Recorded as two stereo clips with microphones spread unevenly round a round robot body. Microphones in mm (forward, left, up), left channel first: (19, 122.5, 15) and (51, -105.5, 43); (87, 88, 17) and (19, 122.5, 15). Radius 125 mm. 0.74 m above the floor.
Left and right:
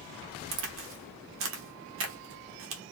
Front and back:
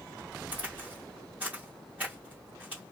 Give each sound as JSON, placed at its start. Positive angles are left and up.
{"t": 0.5, "sound": "a crack", "azimuth_deg": -125, "distance_m": 0.7}